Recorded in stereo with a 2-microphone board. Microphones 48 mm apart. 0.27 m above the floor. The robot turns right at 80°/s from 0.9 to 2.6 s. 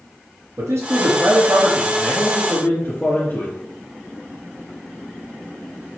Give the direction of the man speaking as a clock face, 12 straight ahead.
3 o'clock.